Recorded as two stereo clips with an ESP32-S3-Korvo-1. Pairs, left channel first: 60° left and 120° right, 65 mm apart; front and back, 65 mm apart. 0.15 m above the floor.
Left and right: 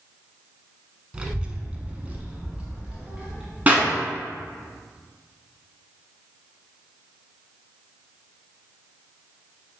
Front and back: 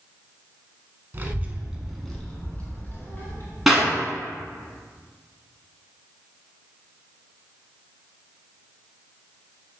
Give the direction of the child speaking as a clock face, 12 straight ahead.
6 o'clock.